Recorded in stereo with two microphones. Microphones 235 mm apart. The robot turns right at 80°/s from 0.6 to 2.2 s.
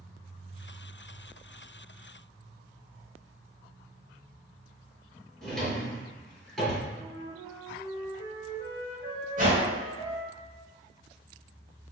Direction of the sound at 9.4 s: 35° right (ahead or behind).